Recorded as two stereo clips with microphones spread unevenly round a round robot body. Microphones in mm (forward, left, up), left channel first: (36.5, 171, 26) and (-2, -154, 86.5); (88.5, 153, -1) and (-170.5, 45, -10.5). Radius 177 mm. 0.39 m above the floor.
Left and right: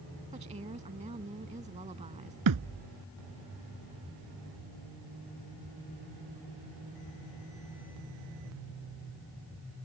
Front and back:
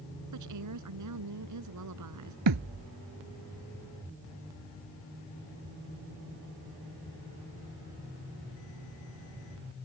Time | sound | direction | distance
0.3 | a woman speaking | 170° right | ?
2.5 | a thud | 130° right | ?